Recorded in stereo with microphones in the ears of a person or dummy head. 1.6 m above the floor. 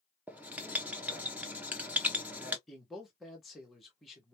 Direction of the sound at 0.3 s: 10° right (ahead or behind).